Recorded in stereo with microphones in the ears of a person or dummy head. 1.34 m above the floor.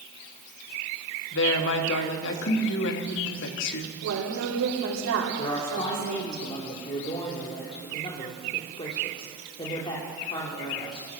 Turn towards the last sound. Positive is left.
turn(degrees=30)  # may be behind; listen again after turning